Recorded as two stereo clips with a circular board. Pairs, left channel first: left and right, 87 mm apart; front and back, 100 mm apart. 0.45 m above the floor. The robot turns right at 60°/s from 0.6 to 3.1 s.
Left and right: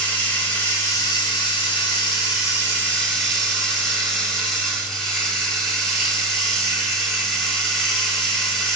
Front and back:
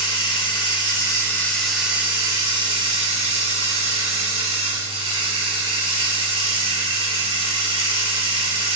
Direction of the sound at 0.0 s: 20° left.